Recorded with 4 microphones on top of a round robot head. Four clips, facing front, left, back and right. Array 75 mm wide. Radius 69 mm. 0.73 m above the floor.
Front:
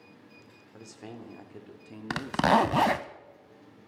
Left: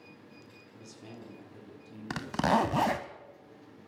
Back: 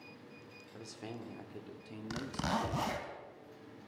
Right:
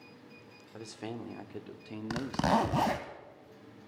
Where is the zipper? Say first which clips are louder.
Left 1 dB, front 13 dB; 5° left, 0.8 m.